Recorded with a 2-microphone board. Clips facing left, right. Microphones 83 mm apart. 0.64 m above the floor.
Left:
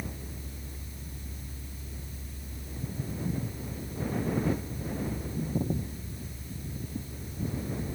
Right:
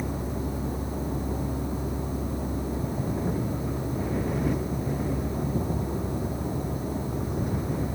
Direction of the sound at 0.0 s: 65° right (ahead or behind).